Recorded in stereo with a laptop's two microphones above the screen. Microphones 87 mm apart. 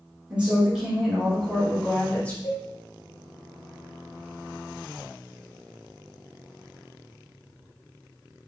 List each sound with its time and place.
0.3 s a woman speaking: 15° right (ahead or behind), 1.5 m; by 2.3 s 20° left (ahead or behind), 0.9 m
2.4 s a cowbell: 50° left (ahead or behind), 1.2 m